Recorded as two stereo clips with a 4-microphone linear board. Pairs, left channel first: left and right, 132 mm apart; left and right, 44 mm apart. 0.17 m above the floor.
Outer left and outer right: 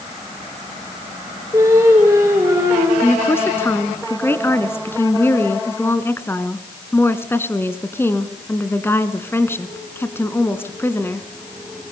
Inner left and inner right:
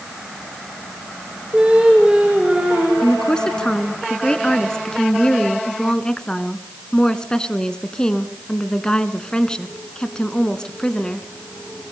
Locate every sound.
1.5 s singing: 20° right (ahead or behind), 9 m
3.0 s a woman speaking: 15° left (ahead or behind), 1.5 m